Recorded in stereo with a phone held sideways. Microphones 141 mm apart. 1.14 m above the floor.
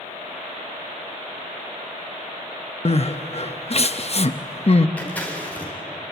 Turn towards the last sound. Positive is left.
turn(degrees=10)  # may be behind; listen again after turning